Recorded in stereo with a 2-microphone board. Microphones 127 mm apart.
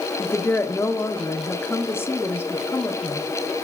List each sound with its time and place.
0.2 s a woman speaking: 15° left (ahead or behind), 0.8 m